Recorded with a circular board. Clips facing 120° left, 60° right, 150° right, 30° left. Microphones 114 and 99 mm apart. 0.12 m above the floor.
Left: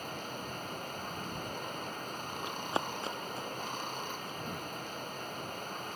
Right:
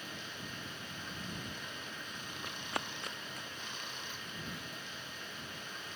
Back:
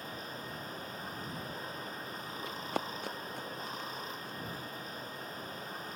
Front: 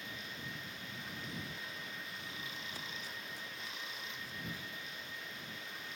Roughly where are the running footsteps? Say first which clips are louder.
Left 6 dB, back 10 dB; behind.